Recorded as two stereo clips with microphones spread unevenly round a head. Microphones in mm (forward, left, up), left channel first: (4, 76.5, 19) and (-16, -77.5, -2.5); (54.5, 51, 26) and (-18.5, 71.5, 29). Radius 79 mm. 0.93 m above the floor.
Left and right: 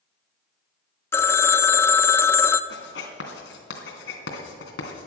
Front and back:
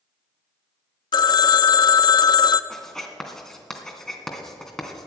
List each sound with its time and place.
1.1 s a phone ringing: 10° left, 0.5 m
2.7 s writing: 70° left, 3 m